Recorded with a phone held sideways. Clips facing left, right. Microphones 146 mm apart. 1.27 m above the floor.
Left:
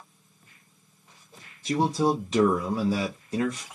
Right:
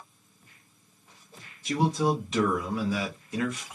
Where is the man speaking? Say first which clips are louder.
Left 2 dB; 35° left (ahead or behind), 0.5 m.